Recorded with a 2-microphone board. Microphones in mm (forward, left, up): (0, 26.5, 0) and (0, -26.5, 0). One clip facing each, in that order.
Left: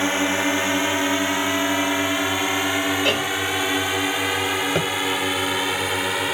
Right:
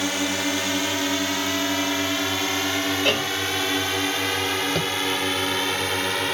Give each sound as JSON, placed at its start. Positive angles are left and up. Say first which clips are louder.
{"t": 0.0, "sound": "a drone", "louder": "left 4 dB", "side_deg": 25}
{"t": 3.0, "sound": "a cowbell", "louder": "left 1 dB", "side_deg": 5}
{"t": 4.8, "sound": "tapping", "louder": "left 3 dB", "side_deg": 30}